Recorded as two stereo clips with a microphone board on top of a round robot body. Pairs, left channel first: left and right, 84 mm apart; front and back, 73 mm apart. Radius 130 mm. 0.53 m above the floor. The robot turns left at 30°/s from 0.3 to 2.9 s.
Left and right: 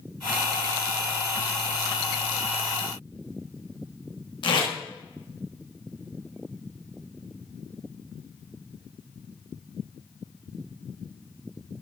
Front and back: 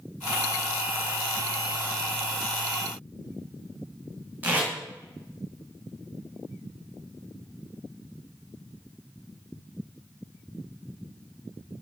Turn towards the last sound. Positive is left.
turn(degrees=115)